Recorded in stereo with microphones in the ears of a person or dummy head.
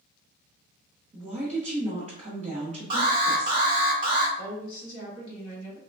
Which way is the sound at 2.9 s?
25° right (ahead or behind).